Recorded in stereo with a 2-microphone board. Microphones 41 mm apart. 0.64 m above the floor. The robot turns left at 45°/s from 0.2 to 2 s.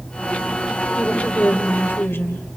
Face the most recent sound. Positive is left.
turn(degrees=110)